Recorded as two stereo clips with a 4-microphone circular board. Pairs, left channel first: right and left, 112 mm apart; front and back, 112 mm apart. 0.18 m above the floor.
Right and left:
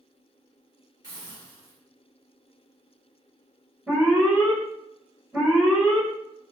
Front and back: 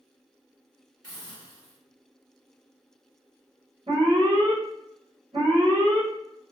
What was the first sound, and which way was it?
A hiss, 115° left.